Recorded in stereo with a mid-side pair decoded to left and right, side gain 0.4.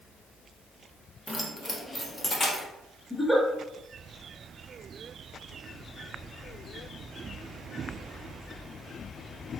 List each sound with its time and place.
1.3 s keys jangling: 5° left, 0.7 m; by 2.6 s 35° left, 1.3 m
3.1 s a giggle: 5° left, 1.3 m